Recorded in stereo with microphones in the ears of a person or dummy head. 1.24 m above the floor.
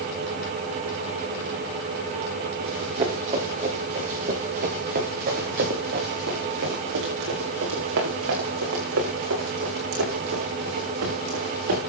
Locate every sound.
2.6 s running footsteps: 30° right (ahead or behind), 7.5 m; by 11.8 s 70° right (ahead or behind), 8.5 m